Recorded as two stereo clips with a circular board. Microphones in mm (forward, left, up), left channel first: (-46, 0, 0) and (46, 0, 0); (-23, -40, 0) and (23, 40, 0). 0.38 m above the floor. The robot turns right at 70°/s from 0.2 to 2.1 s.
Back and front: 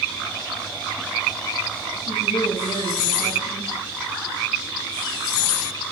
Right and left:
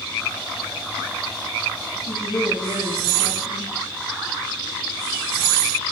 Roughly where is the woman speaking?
Behind right.